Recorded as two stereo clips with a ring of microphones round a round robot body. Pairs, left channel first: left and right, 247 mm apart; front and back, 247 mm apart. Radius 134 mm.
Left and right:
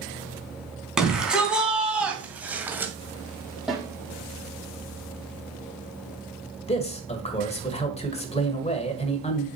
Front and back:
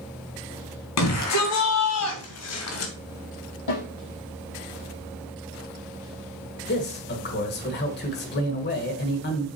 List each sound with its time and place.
1.0 s a shout: 5° right, 3.5 m; by 2.9 s 10° right, 2.0 m
3.7 s a snare drum: straight ahead, 4.5 m
6.7 s a man speaking: 35° left, 1.5 m